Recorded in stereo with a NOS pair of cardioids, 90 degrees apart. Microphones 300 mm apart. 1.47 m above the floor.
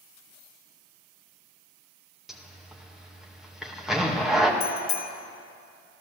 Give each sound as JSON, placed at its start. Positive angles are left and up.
{"t": 2.3, "sound": "a zipper", "azimuth_deg": 0, "distance_m": 2.0}
{"t": 4.6, "sound": "a bicycle bell", "azimuth_deg": 65, "distance_m": 2.5}